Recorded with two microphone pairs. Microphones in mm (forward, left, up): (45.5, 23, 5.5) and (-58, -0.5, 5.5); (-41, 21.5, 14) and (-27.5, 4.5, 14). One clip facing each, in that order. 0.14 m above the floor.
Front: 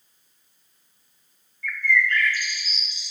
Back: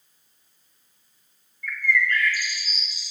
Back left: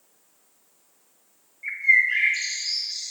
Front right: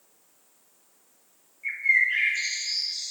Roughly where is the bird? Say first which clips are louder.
Front 1 dB, back left 3 dB; left.